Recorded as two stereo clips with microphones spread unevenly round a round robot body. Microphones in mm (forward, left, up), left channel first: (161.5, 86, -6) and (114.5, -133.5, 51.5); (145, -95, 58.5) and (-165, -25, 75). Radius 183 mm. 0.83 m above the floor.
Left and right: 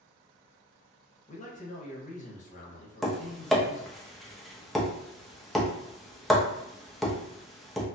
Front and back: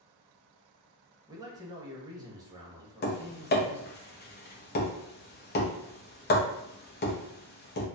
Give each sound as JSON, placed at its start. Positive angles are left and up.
{"t": 1.3, "sound": "a man speaking", "azimuth_deg": 90, "distance_m": 0.8}
{"t": 3.0, "sound": "tapping", "azimuth_deg": 10, "distance_m": 0.9}